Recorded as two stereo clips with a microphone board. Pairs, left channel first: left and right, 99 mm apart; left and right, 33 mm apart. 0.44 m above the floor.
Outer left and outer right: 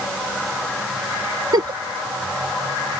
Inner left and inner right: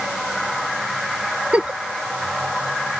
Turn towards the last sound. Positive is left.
turn(degrees=-45)  # may be behind; listen again after turning